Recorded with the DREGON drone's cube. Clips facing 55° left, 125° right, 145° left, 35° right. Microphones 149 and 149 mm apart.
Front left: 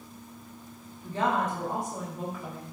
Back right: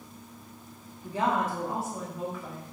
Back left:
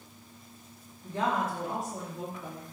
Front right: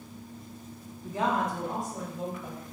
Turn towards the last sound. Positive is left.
turn(degrees=140)